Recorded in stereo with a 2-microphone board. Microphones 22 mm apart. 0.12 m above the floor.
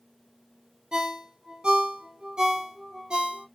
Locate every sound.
0.9 s a ringtone: 45° right (ahead or behind), 0.7 m